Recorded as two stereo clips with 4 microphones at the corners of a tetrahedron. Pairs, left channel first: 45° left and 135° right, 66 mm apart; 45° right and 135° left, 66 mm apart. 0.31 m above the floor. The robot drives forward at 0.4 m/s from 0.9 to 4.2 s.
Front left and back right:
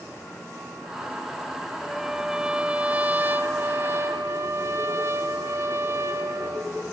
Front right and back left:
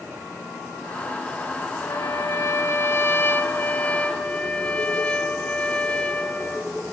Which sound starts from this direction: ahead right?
A trumpet, at 1.8 s.